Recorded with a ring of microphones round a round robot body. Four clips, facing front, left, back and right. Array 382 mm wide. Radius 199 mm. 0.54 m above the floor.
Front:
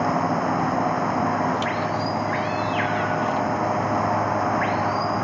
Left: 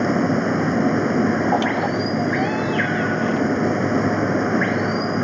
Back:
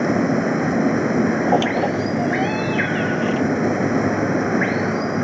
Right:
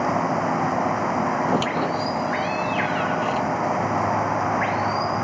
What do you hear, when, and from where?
0.0 s running water: 135° left
1.5 s a squeak: 155° right